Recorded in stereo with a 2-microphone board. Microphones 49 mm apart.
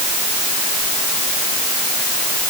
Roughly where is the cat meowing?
No cat meowing in this recording.